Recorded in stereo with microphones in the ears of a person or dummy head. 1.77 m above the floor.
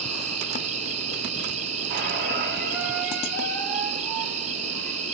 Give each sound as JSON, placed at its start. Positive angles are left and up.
{"t": 0.0, "sound": "an insect", "side_deg": -35, "distance_m": 0.7}
{"t": 1.9, "sound": "a squeak", "side_deg": -35, "distance_m": 3.0}